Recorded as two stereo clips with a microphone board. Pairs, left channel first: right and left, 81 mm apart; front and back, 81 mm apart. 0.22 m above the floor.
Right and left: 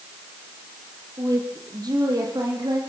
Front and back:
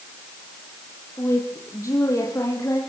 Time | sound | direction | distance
1.2 | a woman speaking | 50° left | 6 m